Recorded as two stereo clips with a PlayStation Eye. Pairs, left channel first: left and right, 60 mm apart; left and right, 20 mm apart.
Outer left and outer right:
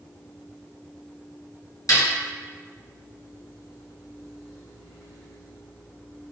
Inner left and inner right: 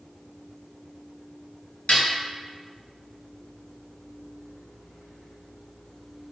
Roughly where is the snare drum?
Left.